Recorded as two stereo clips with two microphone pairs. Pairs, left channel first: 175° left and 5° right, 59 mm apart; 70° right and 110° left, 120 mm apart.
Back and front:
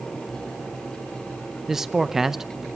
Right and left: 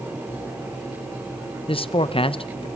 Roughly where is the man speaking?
Right.